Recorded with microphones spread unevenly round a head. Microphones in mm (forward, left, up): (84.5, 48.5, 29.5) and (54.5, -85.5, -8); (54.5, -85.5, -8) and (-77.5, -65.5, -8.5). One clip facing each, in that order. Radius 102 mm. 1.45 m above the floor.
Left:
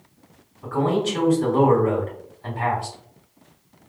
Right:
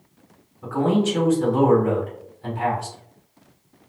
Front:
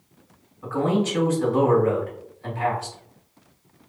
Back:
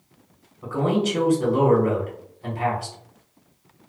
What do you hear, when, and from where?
0.6 s a man speaking: 125° right, 1.6 m